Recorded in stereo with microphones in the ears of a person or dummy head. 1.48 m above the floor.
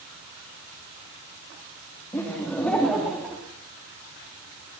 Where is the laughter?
10° left (ahead or behind), 2.5 m; by 3.4 s 5° right (ahead or behind), 3 m.